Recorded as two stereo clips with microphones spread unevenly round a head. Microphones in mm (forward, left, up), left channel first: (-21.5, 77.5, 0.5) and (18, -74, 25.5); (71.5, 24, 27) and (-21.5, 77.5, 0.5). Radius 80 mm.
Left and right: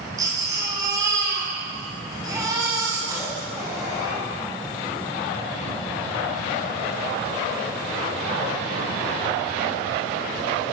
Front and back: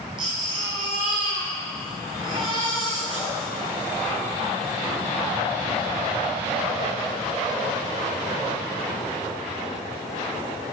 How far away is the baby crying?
About 7 m.